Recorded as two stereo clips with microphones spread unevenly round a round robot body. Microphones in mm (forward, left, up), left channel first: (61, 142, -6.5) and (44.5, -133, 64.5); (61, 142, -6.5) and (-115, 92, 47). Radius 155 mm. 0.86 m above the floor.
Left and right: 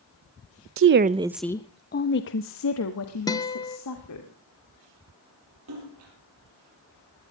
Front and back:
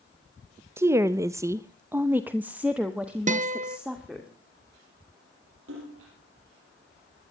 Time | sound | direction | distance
0.8 | a woman speaking | 70° right | 0.7 m
3.3 | a guitar | 145° left | 1.0 m
5.7 | a splash | 135° right | 6 m